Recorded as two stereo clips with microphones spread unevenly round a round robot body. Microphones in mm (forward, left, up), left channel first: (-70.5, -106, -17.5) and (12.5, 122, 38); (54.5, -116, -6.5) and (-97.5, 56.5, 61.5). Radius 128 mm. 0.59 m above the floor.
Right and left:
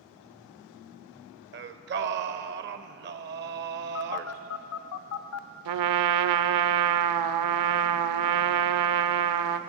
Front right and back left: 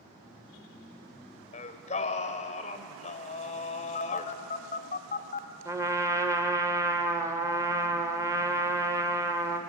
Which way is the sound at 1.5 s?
20° left.